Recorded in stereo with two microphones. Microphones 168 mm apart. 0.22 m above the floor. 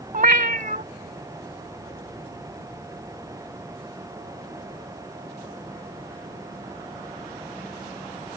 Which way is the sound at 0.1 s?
55° right (ahead or behind).